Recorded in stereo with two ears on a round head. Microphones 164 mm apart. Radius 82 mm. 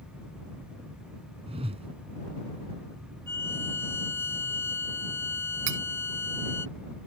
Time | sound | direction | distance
1.5 | a whoosh | 35° right (ahead or behind) | ?
3.3 | a violin | 15° left (ahead or behind) | ?
5.7 | cutlery clinking | 75° right (ahead or behind) | ?